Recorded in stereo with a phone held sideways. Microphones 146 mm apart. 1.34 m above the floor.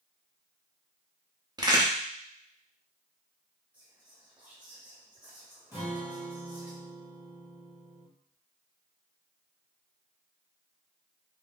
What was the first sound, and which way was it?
A crack, 30° right (ahead or behind).